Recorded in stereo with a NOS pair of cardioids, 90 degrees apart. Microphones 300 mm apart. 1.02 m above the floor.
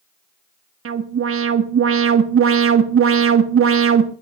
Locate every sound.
0.8 s an alarm: 45° right, 1.6 m